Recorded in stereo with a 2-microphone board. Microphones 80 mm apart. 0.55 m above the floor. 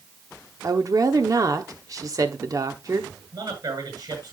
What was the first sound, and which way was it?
A woman speaking, 45° right (ahead or behind).